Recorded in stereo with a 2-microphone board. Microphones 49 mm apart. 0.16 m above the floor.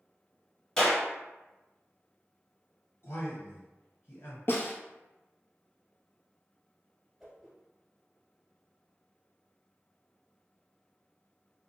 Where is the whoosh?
10° right (ahead or behind), 1.3 m.